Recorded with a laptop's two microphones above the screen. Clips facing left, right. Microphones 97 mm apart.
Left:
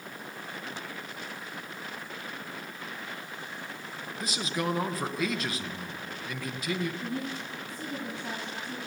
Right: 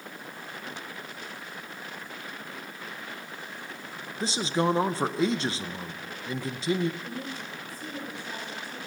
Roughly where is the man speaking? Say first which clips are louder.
Right 6 dB; right.